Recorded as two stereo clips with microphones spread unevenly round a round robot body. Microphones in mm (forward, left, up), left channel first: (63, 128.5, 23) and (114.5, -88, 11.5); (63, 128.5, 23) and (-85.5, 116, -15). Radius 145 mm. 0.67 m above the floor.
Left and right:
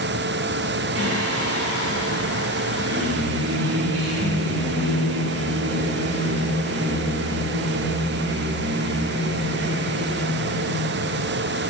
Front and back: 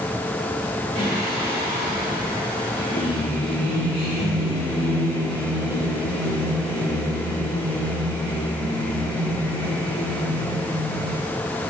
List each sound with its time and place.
0.9 s singing: 115° right, 2.5 m